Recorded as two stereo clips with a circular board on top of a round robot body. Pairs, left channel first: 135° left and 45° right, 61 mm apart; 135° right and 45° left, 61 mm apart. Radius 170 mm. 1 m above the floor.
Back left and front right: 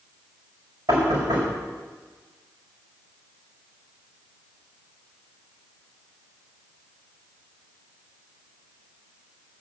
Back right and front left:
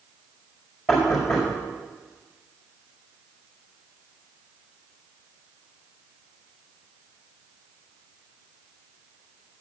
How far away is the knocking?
About 4.5 m.